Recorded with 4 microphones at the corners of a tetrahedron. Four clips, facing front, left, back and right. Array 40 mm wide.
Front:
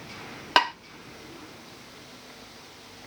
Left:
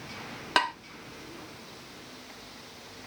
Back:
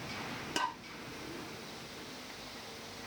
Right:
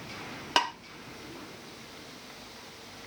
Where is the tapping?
10° left, 0.6 m.